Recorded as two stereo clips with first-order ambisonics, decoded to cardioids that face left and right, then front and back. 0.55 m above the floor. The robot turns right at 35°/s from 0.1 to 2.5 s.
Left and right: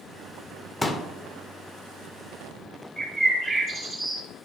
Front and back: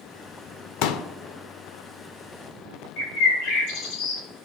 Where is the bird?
Straight ahead, 3 m.